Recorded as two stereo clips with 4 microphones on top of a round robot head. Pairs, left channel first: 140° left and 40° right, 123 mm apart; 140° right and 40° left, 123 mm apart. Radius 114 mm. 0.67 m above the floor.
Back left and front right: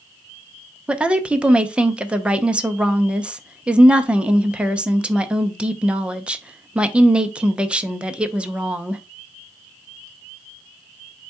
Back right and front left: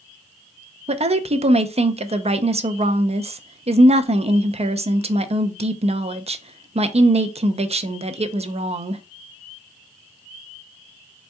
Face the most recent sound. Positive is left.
turn(degrees=40)